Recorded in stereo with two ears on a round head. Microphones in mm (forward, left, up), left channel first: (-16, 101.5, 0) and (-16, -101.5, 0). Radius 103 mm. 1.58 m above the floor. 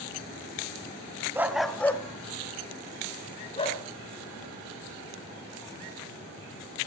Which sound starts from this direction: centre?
A dog barking, at 1.4 s.